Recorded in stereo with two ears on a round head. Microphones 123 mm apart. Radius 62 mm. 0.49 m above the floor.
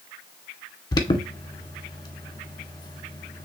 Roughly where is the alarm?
Left.